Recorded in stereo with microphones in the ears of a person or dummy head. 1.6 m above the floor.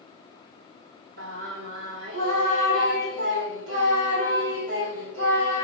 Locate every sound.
1.2 s singing: 75° right (ahead or behind), 2.5 m